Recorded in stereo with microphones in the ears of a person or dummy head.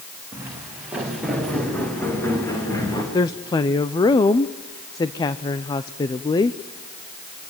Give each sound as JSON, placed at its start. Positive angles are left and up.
{"t": 0.3, "sound": "footsteps", "side_deg": -15, "distance_m": 5.5}
{"t": 3.1, "sound": "a woman speaking", "side_deg": 20, "distance_m": 0.8}